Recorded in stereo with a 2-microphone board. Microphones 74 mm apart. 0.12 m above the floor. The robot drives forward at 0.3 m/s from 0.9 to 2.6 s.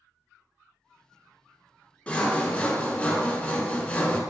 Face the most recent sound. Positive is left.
turn(degrees=20)  # may be behind; listen again after turning